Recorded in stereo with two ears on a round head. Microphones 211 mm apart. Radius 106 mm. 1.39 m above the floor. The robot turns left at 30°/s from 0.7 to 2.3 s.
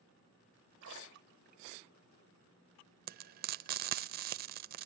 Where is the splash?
55° right (ahead or behind), 1.3 m; by 1.8 s 35° right (ahead or behind), 1.3 m.